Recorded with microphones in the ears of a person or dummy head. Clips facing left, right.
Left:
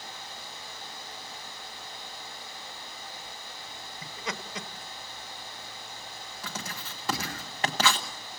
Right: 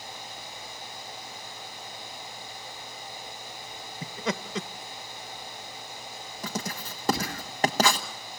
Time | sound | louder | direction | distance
4.0 | laughter | right 7 dB | 50° right (ahead or behind) | 1.0 m
6.4 | writing | right 7 dB | 35° right (ahead or behind) | 1.2 m